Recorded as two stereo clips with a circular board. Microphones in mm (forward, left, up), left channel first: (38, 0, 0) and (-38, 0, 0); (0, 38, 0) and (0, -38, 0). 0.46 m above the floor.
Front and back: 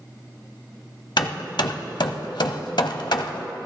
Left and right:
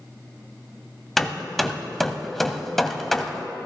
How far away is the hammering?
About 0.8 m.